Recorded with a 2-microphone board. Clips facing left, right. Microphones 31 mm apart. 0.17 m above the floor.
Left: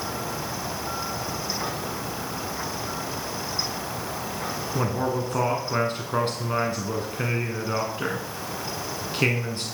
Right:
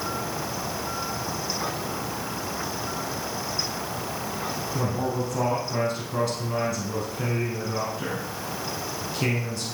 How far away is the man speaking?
About 1.6 m.